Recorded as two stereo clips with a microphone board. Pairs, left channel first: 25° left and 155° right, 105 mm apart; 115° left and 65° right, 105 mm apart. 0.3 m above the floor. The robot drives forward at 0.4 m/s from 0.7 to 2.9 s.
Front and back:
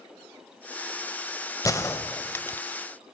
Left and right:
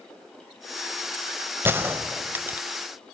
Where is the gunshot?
15° right, 1.5 m; by 2.7 s 20° right, 1.3 m.